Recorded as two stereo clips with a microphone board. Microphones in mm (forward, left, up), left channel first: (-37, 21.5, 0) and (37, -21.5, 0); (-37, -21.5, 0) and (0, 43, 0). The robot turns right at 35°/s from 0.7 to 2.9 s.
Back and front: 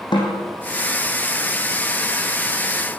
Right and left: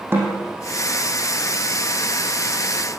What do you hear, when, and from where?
0.1 s a snare drum: 120° left, 6.5 m